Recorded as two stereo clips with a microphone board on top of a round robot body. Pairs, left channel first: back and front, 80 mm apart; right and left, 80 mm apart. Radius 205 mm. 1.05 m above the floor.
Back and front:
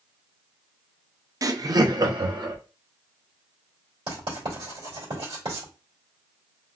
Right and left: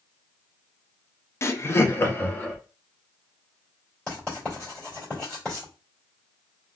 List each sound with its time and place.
1.4 s laughter: 40° right, 0.6 m; by 2.6 s 30° right, 1.2 m
4.1 s writing: 10° right, 2 m